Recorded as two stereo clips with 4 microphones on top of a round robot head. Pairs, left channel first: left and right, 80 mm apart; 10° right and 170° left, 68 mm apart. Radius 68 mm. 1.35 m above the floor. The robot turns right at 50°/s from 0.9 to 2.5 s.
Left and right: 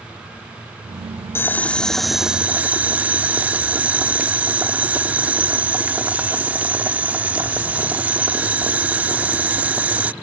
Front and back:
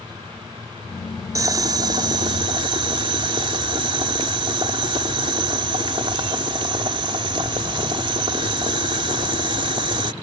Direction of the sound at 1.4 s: 145° left.